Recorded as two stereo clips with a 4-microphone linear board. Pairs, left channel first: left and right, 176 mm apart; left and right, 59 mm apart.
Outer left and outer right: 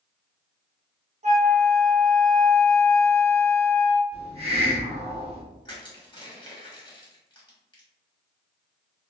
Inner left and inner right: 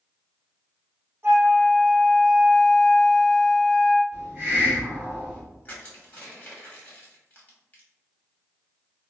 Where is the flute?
40° right (ahead or behind), 0.7 m.